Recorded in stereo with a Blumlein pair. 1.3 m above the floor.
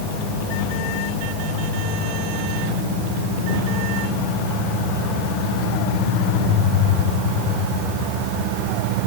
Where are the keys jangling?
No keys jangling in this recording.